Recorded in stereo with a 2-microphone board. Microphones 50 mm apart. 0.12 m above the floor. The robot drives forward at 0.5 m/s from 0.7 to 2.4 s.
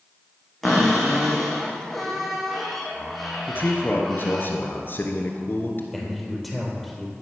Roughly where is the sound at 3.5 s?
Left.